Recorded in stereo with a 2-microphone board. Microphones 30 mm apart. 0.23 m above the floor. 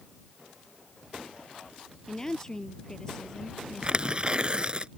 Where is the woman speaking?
20° left (ahead or behind).